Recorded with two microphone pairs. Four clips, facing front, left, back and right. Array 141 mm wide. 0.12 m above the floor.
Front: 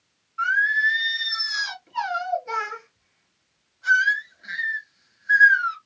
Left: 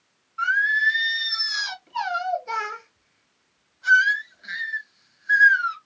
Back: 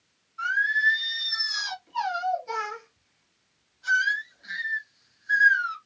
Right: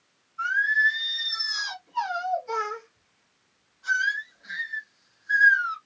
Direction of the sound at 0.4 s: 55° left.